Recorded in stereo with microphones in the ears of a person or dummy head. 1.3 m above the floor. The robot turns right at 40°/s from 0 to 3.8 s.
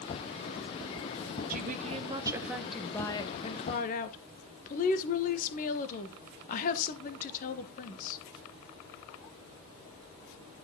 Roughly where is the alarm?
No alarm in this recording.